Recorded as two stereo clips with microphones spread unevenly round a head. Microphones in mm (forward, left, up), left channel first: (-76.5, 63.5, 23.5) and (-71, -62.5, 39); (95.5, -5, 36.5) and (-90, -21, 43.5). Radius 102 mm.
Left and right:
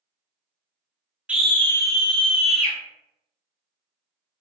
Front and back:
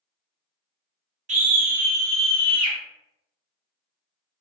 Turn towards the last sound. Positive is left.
turn(degrees=120)